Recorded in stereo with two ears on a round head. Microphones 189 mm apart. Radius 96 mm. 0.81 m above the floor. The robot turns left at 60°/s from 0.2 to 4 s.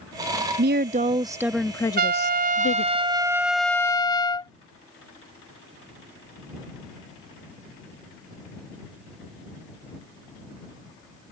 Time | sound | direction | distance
0.6 | a woman speaking | 120° right | ?
2.0 | a trumpet | 85° right | ?